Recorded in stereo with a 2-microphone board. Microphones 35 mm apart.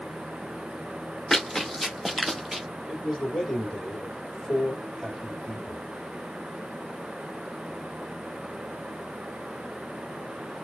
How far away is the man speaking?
About 3 m.